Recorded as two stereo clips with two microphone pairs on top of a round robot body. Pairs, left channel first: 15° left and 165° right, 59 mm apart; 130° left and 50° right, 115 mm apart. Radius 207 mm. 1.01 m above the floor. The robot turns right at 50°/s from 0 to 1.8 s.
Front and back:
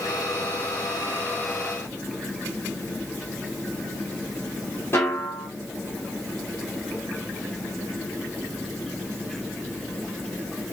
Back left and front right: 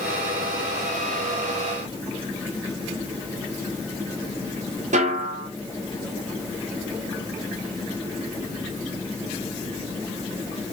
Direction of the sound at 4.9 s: 40° right.